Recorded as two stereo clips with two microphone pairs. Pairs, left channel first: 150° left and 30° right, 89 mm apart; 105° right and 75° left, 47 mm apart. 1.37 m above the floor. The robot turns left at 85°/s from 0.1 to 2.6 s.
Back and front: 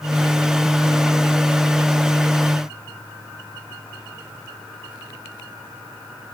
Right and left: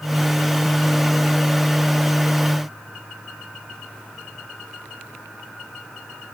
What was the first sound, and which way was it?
Only background noise.